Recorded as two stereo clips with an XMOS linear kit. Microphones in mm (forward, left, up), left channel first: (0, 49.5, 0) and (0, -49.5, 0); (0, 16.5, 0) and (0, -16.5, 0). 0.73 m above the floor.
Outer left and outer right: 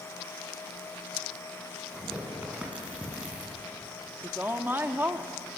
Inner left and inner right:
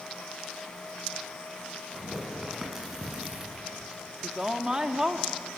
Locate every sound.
1.9 s tearing paper: 10° right (ahead or behind), 7.5 m
4.2 s a woman speaking: 20° right (ahead or behind), 1.3 m